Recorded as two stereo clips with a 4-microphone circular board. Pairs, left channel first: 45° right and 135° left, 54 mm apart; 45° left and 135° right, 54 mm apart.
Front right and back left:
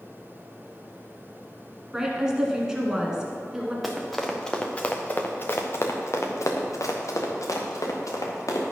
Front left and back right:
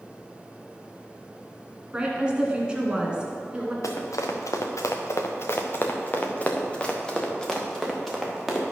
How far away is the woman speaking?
About 1.5 m.